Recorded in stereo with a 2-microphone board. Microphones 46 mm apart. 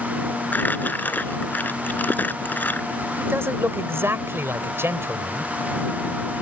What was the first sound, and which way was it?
Crumpling, 40° left (ahead or behind).